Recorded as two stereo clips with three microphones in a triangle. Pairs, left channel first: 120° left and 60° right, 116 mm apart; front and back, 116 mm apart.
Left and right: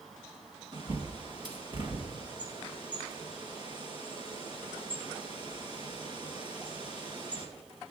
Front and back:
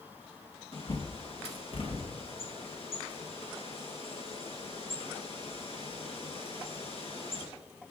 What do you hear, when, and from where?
0.7 s a bird: 20° right, 2 m